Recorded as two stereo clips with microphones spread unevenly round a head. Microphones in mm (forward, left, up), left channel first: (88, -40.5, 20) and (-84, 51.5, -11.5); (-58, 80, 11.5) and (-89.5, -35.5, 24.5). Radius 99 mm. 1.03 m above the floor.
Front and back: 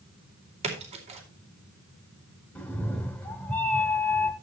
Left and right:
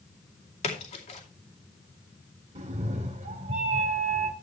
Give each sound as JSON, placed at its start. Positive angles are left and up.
{"t": 0.6, "sound": "a splash", "azimuth_deg": 95, "distance_m": 2.5}
{"t": 2.5, "sound": "a cat meowing", "azimuth_deg": -105, "distance_m": 1.1}